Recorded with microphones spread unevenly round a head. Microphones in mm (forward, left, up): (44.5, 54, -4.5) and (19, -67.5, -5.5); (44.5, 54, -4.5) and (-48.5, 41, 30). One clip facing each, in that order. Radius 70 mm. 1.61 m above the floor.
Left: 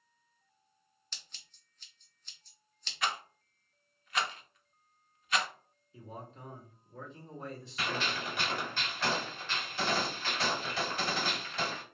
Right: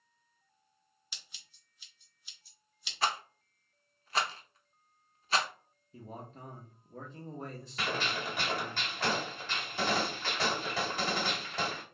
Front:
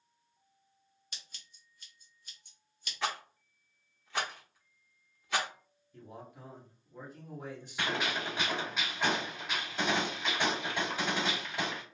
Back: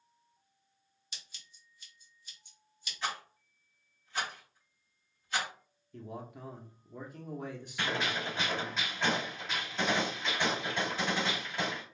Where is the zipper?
I don't hear a zipper.